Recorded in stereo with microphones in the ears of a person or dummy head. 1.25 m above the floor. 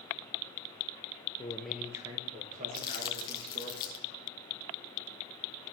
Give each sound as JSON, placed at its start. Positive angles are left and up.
{"t": 1.4, "sound": "a man speaking", "side_deg": 20, "distance_m": 0.8}
{"t": 2.7, "sound": "crumpling", "side_deg": 25, "distance_m": 0.8}